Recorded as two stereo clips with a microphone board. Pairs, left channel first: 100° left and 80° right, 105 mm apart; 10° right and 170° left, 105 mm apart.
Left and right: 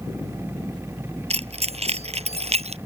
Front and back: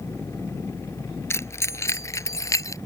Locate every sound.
1.3 s keys jangling: 75° right; by 2.8 s 70° right